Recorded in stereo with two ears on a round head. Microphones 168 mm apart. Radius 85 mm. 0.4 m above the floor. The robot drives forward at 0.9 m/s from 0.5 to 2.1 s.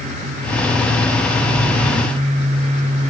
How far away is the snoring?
I don't hear snoring.